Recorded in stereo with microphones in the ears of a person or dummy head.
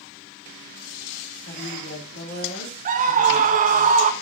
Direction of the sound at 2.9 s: 45° right (ahead or behind).